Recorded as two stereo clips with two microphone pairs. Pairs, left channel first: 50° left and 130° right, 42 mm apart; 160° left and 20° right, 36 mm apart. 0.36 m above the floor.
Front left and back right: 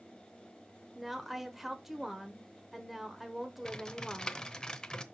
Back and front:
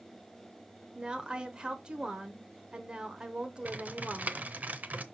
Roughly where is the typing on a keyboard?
Ahead.